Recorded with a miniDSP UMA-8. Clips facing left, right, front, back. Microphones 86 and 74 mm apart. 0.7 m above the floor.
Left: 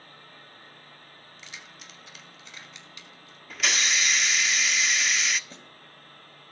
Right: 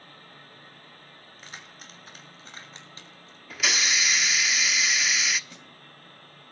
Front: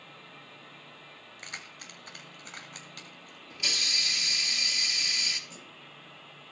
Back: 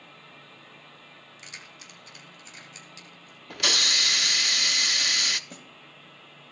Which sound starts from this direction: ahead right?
Keys jangling, at 1.4 s.